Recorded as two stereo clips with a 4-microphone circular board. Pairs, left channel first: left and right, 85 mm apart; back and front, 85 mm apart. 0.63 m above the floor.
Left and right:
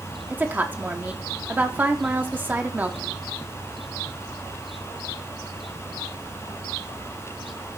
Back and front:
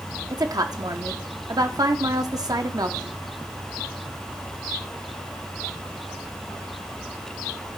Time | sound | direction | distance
0.3 | a woman speaking | 25° right | 0.9 m